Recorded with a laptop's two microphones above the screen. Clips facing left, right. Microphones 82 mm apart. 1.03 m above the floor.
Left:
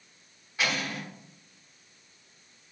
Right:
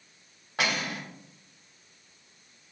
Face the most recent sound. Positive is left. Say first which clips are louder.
# right 1 dB
turn(degrees=-60)  # may be behind; listen again after turning